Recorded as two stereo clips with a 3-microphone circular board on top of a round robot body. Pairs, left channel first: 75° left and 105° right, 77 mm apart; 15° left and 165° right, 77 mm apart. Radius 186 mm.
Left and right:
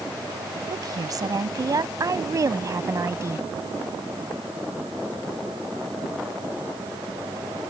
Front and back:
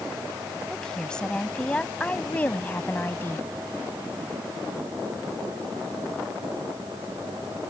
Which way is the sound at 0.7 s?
70° right.